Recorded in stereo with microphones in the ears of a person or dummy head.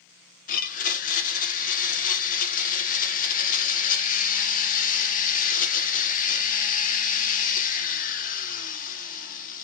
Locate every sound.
0.5 s a blender: 45° left (ahead or behind), 1.1 m